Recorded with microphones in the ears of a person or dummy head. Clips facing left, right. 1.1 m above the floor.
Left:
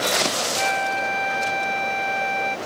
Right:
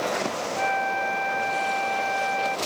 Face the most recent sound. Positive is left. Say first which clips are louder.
# left 1 dB
turn(degrees=55)  # may be behind; listen again after turning